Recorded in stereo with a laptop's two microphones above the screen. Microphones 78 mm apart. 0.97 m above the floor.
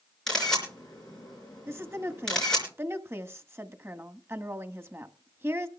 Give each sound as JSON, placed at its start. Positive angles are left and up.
{"t": 0.3, "sound": "a camera shutter", "side_deg": 5, "distance_m": 4.5}
{"t": 1.7, "sound": "a woman speaking", "side_deg": -30, "distance_m": 1.4}